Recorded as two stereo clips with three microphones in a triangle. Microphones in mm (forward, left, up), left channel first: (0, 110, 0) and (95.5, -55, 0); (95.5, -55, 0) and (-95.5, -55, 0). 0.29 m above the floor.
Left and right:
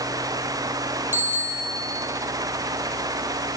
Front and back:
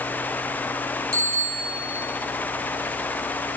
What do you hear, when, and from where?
1.1 s a bicycle bell: 140° right, 5.5 m